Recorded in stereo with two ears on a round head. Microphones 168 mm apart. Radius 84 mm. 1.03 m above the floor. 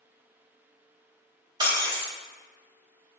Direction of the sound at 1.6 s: 25° right (ahead or behind).